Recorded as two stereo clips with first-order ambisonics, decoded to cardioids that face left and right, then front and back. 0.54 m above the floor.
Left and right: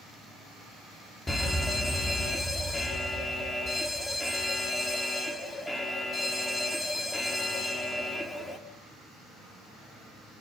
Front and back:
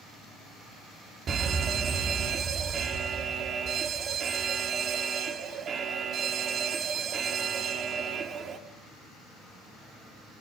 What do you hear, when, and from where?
1.3 s a fire alarm: 160° left, 2 m